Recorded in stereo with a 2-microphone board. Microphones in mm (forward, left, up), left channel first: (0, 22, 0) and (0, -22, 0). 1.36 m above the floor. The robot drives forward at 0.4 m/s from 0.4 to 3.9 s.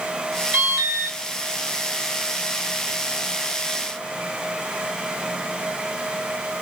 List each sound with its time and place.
0.5 s an alarm: 45° right (ahead or behind), 1.8 m; by 1.2 s 55° right (ahead or behind), 1.6 m